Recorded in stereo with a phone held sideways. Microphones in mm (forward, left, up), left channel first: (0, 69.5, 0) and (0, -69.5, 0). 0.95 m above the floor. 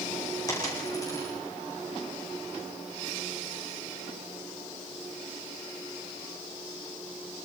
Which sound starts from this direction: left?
A dropped coin, at 0.5 s.